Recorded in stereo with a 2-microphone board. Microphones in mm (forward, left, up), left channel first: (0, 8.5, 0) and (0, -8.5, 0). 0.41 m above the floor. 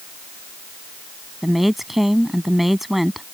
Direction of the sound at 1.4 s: 5° right (ahead or behind).